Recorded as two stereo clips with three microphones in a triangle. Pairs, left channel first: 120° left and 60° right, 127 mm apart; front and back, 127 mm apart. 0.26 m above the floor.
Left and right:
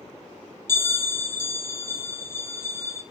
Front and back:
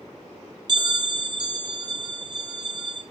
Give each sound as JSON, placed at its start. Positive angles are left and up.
{"t": 0.7, "sound": "a bell", "azimuth_deg": 170, "distance_m": 0.7}